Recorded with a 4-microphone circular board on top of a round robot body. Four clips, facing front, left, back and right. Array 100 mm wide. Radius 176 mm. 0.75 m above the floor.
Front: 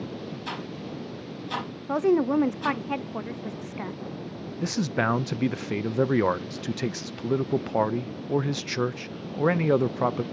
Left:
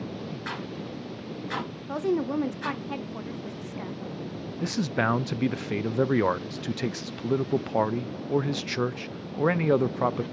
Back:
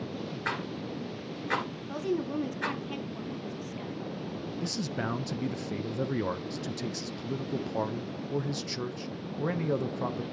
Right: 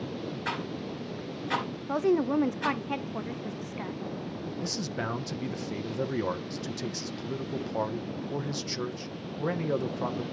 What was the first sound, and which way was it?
A rattle, straight behind.